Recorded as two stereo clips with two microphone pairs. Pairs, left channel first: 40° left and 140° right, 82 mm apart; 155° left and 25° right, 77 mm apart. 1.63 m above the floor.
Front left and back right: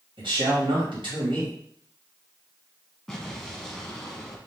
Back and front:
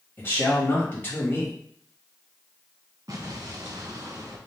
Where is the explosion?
50° right, 1.0 m.